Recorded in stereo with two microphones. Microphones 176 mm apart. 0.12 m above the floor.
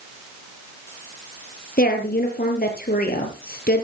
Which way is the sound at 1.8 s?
65° left (ahead or behind).